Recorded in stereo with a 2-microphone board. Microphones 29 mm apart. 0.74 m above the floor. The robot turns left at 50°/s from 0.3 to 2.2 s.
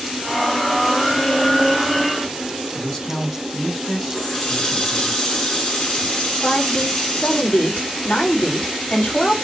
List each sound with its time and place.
2.8 s a man speaking: 10° left (ahead or behind), 4.5 m
4.1 s a running tap: 25° left (ahead or behind), 5.5 m
6.4 s a woman speaking: 40° left (ahead or behind), 5.5 m